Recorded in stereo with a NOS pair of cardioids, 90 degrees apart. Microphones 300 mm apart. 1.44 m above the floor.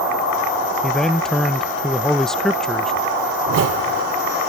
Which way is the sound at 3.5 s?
55° right.